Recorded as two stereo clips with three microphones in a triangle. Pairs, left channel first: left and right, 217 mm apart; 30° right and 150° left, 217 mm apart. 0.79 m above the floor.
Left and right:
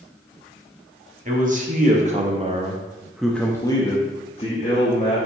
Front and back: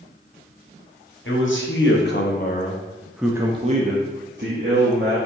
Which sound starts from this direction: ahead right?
A man speaking, at 1.2 s.